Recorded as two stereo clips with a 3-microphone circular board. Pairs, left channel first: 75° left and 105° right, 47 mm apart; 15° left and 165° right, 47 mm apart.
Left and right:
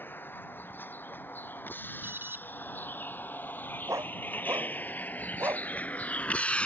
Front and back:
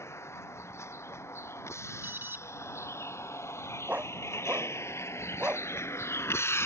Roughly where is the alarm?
Behind right.